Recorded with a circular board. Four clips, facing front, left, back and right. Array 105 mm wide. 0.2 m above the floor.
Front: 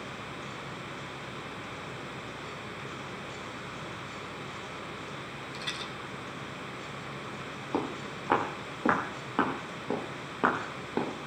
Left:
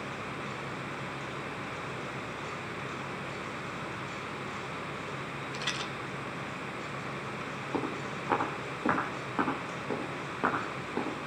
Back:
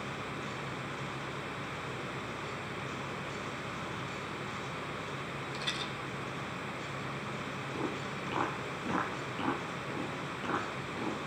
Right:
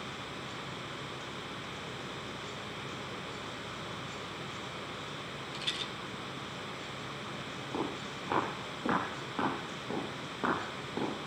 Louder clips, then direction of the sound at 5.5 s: Left 5 dB, front 1 dB; 85° left.